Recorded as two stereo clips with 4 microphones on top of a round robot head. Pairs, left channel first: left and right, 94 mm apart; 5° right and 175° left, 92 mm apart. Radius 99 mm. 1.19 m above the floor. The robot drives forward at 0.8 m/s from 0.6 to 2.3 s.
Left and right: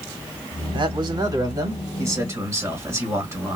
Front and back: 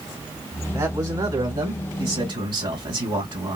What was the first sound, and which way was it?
A man speaking, 120° right.